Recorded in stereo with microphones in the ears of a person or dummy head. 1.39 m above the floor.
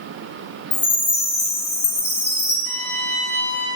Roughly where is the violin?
Centre.